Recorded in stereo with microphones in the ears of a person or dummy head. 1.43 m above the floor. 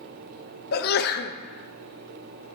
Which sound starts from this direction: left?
A sneeze, at 0.7 s.